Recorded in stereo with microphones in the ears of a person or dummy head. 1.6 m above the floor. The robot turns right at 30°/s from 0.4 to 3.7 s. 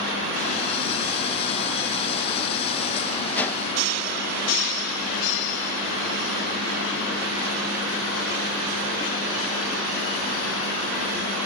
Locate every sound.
3.4 s a whoosh: 5° left (ahead or behind), 0.9 m; by 3.6 s 15° left (ahead or behind), 0.9 m